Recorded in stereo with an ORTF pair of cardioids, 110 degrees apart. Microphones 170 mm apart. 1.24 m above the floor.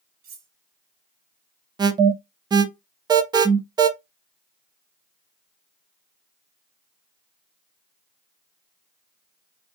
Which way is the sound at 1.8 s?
25° right.